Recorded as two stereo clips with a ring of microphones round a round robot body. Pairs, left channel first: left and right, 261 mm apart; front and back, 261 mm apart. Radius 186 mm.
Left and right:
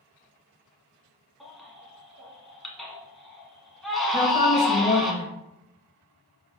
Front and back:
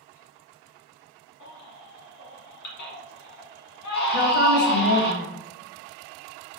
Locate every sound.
1.4 s a baby crying: straight ahead, 1.4 m
4.1 s a woman speaking: 30° left, 1.8 m